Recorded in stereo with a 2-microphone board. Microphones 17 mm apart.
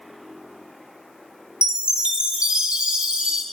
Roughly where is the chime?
Right.